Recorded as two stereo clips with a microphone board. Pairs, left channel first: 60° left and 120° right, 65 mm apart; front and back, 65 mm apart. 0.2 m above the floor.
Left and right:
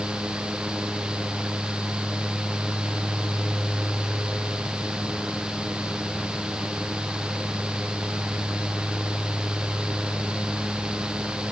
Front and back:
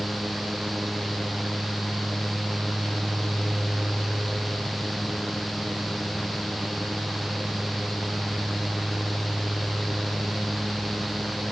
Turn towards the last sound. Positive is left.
No sound to turn to.